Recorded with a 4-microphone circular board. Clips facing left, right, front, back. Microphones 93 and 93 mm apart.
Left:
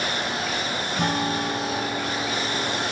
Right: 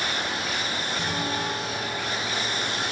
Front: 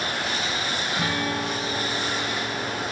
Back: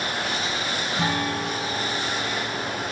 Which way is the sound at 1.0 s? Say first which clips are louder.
Left 6 dB, back 2 dB; 115° left.